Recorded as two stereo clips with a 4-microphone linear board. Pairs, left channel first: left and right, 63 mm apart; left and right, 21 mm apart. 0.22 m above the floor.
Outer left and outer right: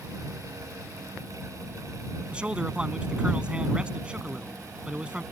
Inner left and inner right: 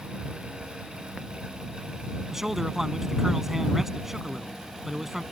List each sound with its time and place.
2.3 s a man speaking: 20° right (ahead or behind)